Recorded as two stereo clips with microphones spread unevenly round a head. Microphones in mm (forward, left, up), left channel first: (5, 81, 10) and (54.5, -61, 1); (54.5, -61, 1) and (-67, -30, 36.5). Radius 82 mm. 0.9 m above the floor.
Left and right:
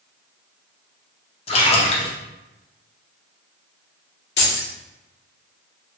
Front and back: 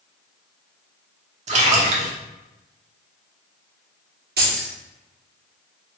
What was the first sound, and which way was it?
A splash, 145° left.